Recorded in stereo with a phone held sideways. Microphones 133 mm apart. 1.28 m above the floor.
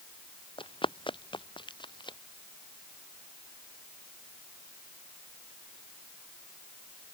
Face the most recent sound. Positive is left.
turn(degrees=35)  # may be behind; listen again after turning